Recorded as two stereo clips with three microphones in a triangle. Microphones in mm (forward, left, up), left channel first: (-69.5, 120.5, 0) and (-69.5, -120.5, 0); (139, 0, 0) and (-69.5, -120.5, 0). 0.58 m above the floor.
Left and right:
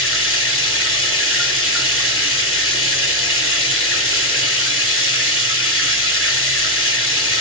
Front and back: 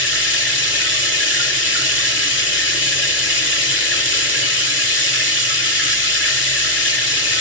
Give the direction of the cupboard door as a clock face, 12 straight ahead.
No cupboard door in this recording.